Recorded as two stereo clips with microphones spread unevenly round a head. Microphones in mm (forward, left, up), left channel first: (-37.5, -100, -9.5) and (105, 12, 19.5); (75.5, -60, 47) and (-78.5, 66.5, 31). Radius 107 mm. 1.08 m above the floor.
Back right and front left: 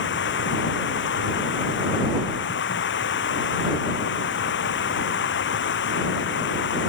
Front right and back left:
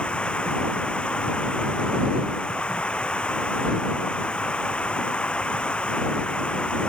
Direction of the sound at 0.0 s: 125° right.